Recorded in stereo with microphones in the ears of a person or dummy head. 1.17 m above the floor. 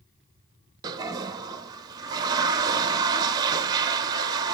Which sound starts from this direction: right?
A toilet flushing, at 0.8 s.